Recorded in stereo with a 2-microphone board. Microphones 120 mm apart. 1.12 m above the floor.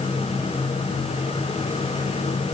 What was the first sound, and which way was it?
Only background noise.